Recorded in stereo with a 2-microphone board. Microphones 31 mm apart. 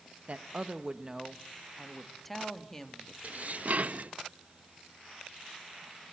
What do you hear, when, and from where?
0.3 s a woman speaking: 55° right (ahead or behind), 0.8 m; by 3.1 s 15° left (ahead or behind), 1.9 m
3.2 s dishes clattering: 55° right (ahead or behind), 0.8 m